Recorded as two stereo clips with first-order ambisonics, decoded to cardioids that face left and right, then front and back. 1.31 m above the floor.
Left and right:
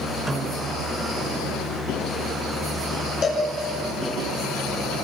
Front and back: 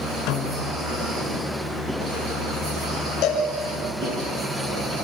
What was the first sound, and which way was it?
A snare drum, straight ahead.